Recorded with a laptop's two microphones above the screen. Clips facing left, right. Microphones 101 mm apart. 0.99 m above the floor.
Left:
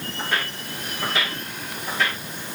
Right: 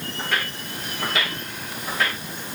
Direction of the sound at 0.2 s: 10° left (ahead or behind).